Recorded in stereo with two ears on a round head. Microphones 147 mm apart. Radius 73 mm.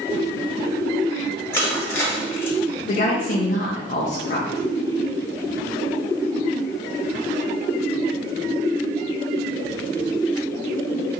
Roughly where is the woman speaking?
Left.